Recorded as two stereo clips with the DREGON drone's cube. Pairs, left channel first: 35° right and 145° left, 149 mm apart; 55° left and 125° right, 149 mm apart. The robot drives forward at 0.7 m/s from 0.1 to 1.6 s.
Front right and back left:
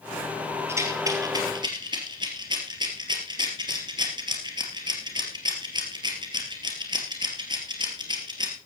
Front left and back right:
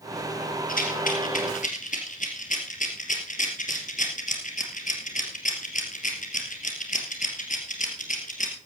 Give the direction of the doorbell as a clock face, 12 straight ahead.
No doorbell in this recording.